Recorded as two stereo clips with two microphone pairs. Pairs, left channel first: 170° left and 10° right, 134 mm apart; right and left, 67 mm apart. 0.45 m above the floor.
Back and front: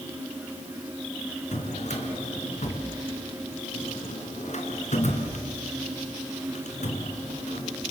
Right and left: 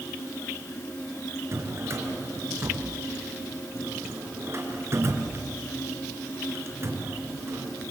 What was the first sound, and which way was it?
A drawer, 140° left.